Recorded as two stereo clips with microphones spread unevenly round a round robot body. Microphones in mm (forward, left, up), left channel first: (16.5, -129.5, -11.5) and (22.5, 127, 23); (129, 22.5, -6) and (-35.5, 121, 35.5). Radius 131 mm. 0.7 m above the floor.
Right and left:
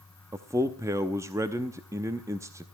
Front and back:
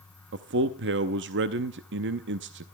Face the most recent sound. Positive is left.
turn(degrees=170)